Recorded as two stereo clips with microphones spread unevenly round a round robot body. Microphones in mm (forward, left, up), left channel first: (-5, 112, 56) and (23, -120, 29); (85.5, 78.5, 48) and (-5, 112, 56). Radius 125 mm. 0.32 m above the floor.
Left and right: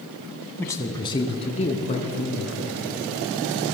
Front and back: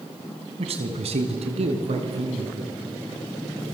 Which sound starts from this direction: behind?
A man speaking, at 0.6 s.